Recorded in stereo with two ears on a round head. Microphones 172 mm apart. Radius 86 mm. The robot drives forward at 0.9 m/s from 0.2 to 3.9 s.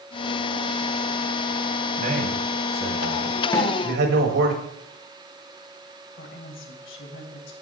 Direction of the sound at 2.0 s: 45° right (ahead or behind).